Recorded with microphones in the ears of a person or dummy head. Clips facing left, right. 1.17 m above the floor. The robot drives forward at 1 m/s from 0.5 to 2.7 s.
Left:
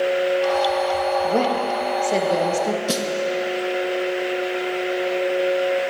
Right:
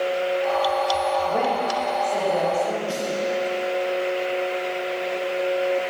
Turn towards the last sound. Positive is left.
turn(degrees=70)  # may be behind; listen again after turning